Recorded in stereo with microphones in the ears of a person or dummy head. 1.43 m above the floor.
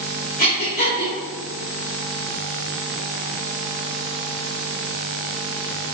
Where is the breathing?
50° left (ahead or behind), 3 m.